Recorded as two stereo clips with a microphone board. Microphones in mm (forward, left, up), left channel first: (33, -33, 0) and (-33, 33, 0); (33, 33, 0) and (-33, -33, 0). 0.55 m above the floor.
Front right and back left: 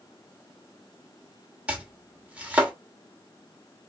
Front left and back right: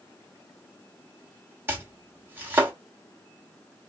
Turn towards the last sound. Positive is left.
turn(degrees=-165)